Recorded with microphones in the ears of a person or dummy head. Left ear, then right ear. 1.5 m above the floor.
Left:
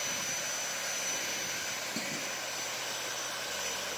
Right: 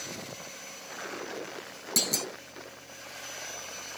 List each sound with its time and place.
2.0 s a clunk: 70° right (ahead or behind), 0.8 m